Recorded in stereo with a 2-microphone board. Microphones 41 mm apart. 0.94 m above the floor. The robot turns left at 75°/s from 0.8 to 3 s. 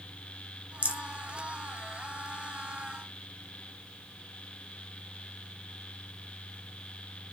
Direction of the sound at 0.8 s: 40° right (ahead or behind).